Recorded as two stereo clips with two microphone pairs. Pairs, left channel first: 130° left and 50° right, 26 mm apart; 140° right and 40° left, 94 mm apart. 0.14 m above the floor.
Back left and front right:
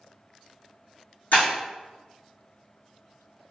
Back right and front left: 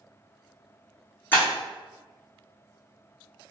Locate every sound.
1.3 s breaking glass: 150° left, 1.4 m